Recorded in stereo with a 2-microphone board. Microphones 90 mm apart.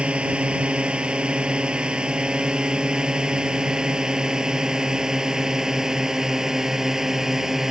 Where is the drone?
10° right (ahead or behind); by 7.7 s 5° right (ahead or behind).